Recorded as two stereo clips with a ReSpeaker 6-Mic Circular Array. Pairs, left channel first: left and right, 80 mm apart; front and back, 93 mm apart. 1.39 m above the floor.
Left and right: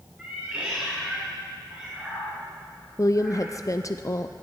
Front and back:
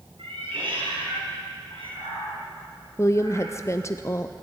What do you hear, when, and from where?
0.2 s a cat meowing: 165° right, 6 m; by 3.5 s 175° right, 8.5 m
3.0 s a woman speaking: 50° left, 0.6 m